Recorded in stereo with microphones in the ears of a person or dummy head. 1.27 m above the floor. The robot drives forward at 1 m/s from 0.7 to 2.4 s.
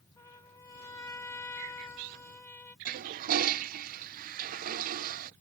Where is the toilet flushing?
45° right (ahead or behind).